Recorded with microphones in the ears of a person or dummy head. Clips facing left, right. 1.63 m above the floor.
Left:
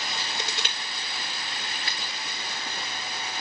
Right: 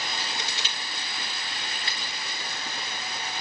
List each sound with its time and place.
0.4 s crushing: 50° left (ahead or behind), 5.5 m
1.9 s scissors: 25° right (ahead or behind), 1.4 m